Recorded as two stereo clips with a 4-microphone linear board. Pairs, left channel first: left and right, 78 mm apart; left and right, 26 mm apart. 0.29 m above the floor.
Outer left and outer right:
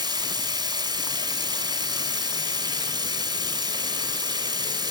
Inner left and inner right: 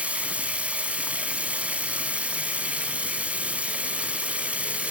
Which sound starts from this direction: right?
Running water, at 0.0 s.